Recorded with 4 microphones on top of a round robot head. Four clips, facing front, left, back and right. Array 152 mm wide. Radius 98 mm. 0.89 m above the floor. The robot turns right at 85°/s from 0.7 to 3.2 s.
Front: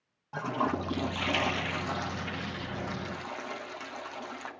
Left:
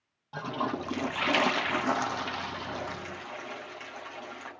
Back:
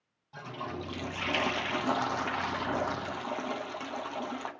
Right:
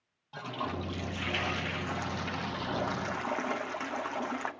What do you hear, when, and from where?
0.3 s a toilet flushing: 25° left, 1.0 m; by 4.5 s 120° right, 1.0 m